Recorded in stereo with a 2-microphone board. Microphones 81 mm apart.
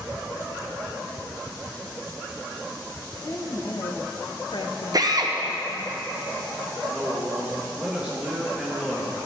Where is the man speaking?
10° right (ahead or behind), 2 m.